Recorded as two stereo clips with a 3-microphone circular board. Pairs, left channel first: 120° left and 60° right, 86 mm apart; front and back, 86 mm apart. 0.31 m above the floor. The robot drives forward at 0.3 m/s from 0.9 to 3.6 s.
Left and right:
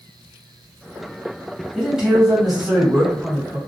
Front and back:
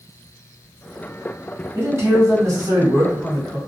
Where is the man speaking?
135° right, 1.3 m; by 3.6 s 150° right, 1.6 m.